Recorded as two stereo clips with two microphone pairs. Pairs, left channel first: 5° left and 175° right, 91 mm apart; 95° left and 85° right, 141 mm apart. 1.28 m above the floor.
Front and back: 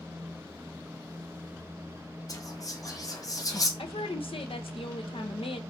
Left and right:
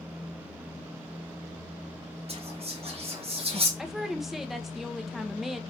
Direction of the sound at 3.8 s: 5° left.